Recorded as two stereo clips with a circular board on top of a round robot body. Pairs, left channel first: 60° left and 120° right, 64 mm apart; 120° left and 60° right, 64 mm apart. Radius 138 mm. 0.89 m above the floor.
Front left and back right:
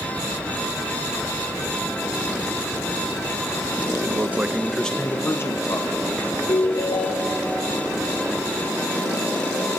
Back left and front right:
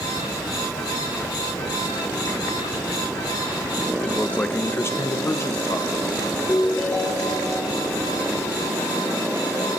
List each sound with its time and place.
4.0 s a man speaking: 165° right, 1.4 m; by 6.4 s 70° left, 2.5 m
6.5 s a ringtone: 50° left, 2.5 m